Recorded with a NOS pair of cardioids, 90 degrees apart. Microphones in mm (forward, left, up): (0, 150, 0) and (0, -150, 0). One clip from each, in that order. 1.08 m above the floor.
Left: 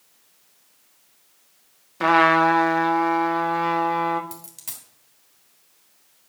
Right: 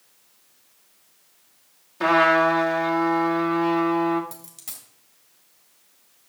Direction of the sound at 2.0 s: 20° left.